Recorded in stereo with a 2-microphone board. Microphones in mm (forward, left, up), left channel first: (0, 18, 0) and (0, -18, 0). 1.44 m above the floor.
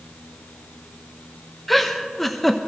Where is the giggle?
5° left (ahead or behind), 0.8 m.